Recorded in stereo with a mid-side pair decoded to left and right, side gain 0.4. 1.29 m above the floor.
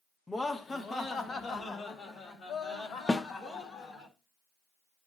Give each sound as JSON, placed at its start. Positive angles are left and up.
{"t": 0.3, "sound": "laughter", "azimuth_deg": 25, "distance_m": 1.4}
{"t": 3.1, "sound": "a snare drum", "azimuth_deg": 30, "distance_m": 1.0}